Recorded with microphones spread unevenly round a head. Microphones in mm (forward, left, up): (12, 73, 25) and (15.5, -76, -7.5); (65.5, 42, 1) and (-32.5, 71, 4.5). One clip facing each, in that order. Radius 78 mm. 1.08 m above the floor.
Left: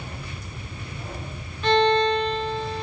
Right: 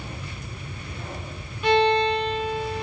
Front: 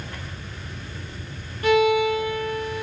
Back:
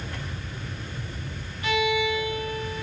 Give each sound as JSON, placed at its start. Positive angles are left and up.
{"t": 1.6, "sound": "a violin", "azimuth_deg": -25, "distance_m": 0.9}